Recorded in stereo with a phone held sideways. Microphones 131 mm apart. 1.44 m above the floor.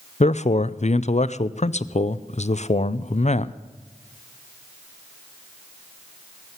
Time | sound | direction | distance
0.2 | a man speaking | 60° left (ahead or behind) | 0.5 m